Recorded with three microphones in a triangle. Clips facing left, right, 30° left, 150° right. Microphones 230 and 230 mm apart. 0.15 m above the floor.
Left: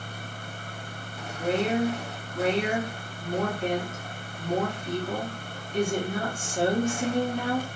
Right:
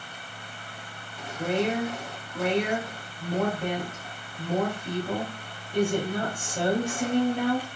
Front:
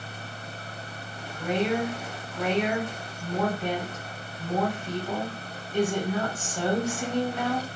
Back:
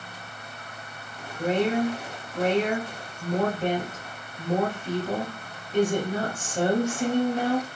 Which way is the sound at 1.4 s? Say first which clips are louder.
Left 1 dB, back 3 dB; 105° right.